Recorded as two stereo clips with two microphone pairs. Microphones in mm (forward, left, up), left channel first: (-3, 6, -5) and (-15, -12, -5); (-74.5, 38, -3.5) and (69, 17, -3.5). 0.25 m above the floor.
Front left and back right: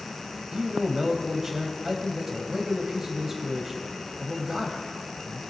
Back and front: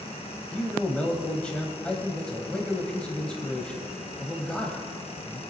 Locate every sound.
0.5 s a man speaking: 120° right, 1.0 m